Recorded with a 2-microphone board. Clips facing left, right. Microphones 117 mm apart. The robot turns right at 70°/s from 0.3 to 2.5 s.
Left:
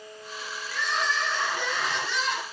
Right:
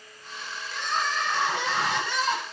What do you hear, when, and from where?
0.7 s crying: 165° right, 7.5 m; by 2.4 s 40° right, 7.5 m